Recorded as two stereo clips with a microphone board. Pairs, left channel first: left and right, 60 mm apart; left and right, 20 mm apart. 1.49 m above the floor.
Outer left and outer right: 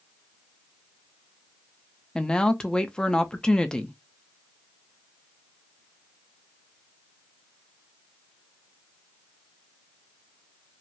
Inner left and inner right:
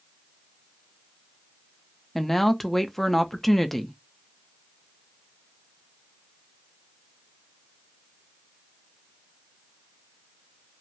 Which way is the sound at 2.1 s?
15° left (ahead or behind).